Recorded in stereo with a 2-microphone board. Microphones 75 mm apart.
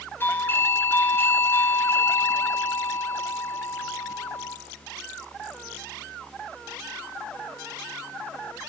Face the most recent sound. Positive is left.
turn(degrees=30)  # may be behind; listen again after turning